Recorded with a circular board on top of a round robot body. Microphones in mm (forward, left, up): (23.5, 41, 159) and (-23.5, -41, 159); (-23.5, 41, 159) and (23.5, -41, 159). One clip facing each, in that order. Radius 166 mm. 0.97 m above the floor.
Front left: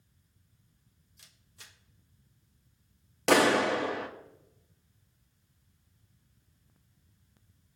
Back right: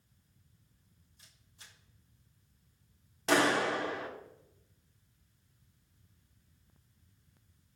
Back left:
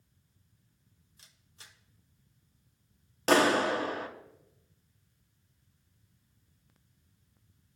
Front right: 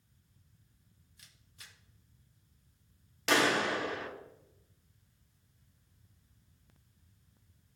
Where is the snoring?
I don't hear snoring.